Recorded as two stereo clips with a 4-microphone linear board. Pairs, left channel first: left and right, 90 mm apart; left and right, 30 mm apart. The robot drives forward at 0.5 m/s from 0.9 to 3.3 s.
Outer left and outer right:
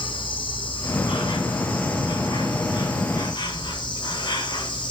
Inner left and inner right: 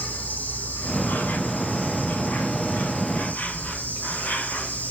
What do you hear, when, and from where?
0.0 s an insect: 65° left (ahead or behind), 2.5 m; by 4.9 s 55° left (ahead or behind), 3 m